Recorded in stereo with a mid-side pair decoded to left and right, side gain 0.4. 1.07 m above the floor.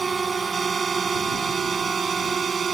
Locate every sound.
0.0 s a drone: 35° right; by 2.8 s 45° right